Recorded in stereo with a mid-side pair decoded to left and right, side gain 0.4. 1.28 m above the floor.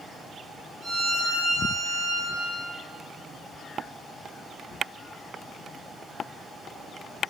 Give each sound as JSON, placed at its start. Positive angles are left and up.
{"t": 0.8, "sound": "a violin", "azimuth_deg": -45, "distance_m": 1.0}